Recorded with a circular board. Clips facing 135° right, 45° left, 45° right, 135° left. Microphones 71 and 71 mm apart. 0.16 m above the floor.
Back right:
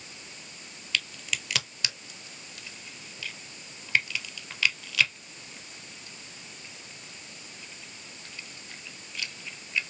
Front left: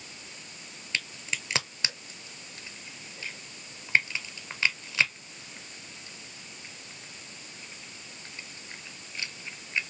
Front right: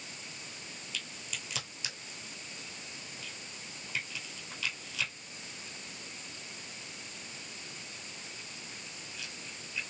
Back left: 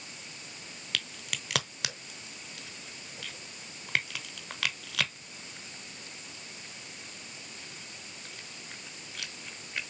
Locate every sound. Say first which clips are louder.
0.9 s a crack: back right 1 dB, back left 6 dB; 110° left, 0.7 m